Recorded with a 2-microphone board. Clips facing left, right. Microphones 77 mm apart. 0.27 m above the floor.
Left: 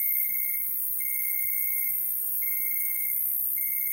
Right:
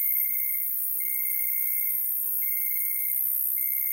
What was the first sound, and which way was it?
An insect, 55° left (ahead or behind).